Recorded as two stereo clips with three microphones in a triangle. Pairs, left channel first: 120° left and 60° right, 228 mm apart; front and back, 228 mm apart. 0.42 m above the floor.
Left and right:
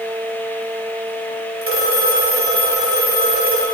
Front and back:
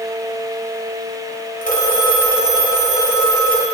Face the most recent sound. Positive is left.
turn(degrees=-50)